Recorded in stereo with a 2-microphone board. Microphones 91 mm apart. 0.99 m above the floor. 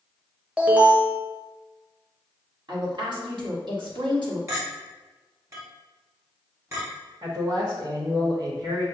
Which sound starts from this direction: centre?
An alarm, at 0.6 s.